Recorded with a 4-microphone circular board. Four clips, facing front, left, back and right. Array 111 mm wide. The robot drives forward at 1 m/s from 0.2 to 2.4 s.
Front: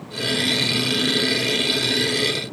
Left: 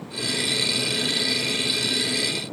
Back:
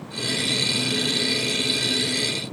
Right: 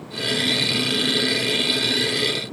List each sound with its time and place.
Only background noise.